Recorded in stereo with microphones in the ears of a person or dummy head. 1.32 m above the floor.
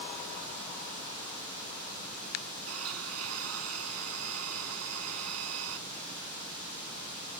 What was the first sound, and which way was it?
A blender, 90° right.